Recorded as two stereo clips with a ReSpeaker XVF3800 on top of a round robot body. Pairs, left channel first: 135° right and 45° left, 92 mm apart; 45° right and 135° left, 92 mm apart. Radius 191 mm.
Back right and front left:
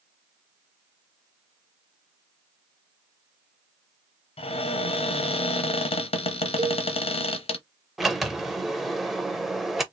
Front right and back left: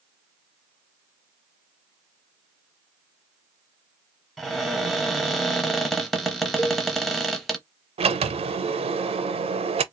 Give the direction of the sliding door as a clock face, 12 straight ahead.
8 o'clock.